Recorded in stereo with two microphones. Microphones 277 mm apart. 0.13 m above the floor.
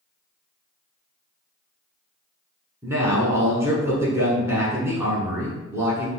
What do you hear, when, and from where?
2.8 s a man speaking: 10° right (ahead or behind), 1.0 m